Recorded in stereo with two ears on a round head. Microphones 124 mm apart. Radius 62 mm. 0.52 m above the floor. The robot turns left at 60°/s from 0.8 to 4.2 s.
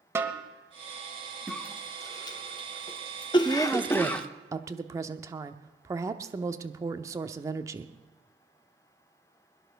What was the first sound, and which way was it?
A snare drum, 20° right (ahead or behind).